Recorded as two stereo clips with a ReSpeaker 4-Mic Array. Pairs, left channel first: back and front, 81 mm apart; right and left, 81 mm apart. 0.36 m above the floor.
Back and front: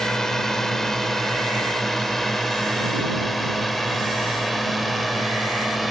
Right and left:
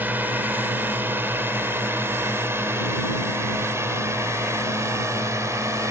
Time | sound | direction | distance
0.0 | a drone | 105° left | ?